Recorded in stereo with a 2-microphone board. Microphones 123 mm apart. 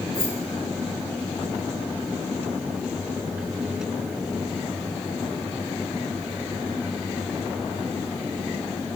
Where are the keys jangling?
40° left (ahead or behind), 8.5 m.